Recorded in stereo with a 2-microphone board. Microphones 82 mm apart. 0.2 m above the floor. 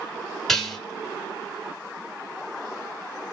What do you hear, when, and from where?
0.5 s dishes clattering: 5° left (ahead or behind), 1.3 m